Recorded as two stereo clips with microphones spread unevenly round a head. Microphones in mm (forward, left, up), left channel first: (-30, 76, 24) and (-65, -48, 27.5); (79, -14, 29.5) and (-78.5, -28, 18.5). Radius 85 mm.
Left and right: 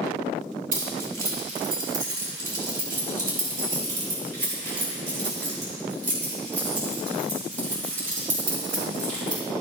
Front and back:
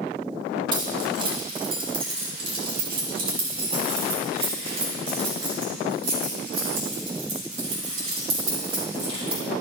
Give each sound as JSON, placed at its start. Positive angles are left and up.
{"t": 0.7, "sound": "keys jangling", "azimuth_deg": -115, "distance_m": 2.5}